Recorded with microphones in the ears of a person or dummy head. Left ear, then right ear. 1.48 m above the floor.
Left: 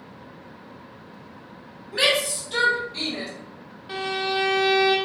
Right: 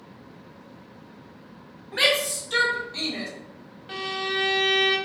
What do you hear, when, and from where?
1.9 s a shout: 35° right (ahead or behind), 1.3 m; by 3.3 s 75° right (ahead or behind), 2.0 m
3.9 s a violin: 25° right (ahead or behind), 0.9 m